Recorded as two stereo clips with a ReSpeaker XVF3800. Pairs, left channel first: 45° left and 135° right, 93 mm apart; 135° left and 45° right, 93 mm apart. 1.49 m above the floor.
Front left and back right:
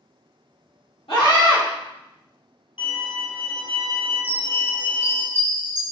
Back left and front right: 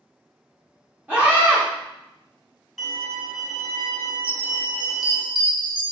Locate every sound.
1.1 s a scream: 25° left, 1.4 m
2.8 s a violin: 50° left, 0.6 m
4.2 s a chime: 20° right, 0.5 m